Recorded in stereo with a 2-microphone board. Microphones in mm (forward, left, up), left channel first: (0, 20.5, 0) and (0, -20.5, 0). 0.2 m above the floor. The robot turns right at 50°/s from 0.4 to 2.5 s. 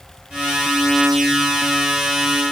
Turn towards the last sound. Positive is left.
No sound to turn to.